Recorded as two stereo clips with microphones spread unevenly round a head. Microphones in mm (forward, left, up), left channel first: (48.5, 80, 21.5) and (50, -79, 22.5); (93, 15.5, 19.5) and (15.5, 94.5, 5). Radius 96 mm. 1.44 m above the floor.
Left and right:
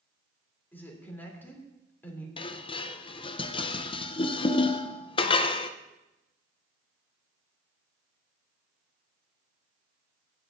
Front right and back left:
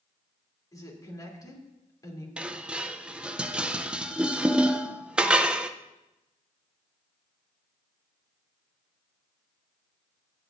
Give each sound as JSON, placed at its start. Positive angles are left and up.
{"t": 0.7, "sound": "a woman speaking", "azimuth_deg": 15, "distance_m": 3.0}
{"t": 2.4, "sound": "dishes clattering", "azimuth_deg": 45, "distance_m": 0.5}